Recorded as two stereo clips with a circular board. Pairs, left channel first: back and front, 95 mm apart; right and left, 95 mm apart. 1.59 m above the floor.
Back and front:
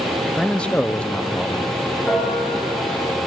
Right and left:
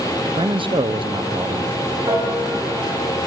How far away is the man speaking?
About 0.5 m.